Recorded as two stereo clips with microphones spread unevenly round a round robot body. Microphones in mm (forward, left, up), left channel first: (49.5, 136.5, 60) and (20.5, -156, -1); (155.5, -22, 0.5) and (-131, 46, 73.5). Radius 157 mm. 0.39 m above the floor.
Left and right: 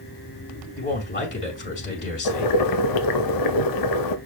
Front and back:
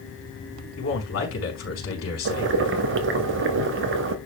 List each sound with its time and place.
0.8 s a man speaking: 25° left, 4.5 m
2.2 s boiling: 115° left, 0.7 m